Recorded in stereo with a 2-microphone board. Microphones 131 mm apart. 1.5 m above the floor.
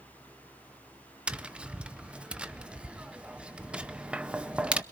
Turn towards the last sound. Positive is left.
turn(degrees=-10)  # may be behind; listen again after turning